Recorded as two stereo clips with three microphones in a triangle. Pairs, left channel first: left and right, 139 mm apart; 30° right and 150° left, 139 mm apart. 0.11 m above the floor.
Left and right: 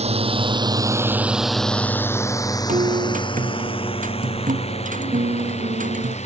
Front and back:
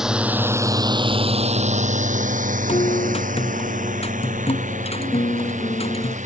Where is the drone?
125° right; by 6.3 s 125° left.